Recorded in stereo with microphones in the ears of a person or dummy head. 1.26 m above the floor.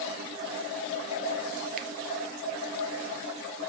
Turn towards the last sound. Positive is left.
turn(degrees=-40)  # may be behind; listen again after turning